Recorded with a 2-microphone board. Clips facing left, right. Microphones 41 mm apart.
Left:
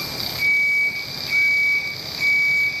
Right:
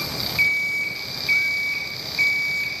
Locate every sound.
0.4 s an alarm clock: 45° right (ahead or behind), 2 m